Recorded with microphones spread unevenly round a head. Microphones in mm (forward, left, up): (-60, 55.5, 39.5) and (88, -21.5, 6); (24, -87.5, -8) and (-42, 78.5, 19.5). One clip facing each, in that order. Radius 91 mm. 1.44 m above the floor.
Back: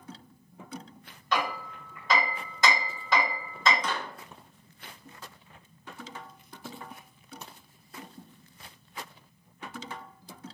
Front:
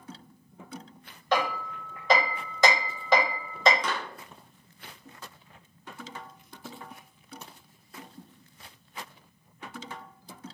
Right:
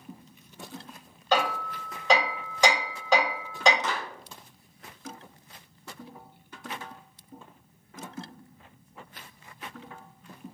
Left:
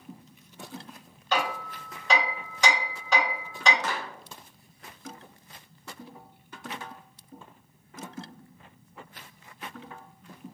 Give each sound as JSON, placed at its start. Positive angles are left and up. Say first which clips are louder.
{"t": 1.3, "sound": "hammering", "louder": "front 3 dB, right 3 dB", "azimuth_deg": -50, "distance_m": 1.8}
{"t": 3.8, "sound": "a clap", "louder": "front 1 dB, even", "azimuth_deg": 5, "distance_m": 0.8}